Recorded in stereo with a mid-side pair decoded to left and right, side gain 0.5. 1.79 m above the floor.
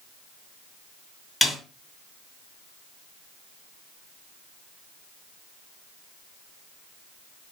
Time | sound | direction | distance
1.4 | a snare drum | 15° left | 1.5 m